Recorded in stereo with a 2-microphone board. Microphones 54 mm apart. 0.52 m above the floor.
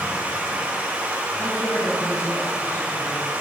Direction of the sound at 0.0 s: 30° right (ahead or behind).